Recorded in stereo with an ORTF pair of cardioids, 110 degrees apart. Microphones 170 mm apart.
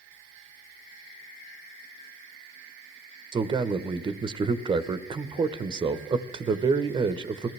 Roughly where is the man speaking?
Ahead right.